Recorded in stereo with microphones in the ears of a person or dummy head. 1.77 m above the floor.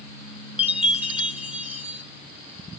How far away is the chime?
About 0.6 m.